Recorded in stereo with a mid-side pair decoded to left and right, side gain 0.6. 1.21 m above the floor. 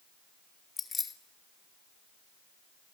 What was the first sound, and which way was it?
Keys jangling, 25° left.